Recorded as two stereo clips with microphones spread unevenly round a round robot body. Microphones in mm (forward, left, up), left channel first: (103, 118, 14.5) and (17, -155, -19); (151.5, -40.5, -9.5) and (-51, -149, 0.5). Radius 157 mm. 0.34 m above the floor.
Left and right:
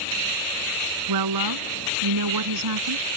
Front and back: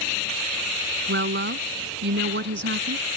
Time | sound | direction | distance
1.1 | a woman speaking | 120° right | ?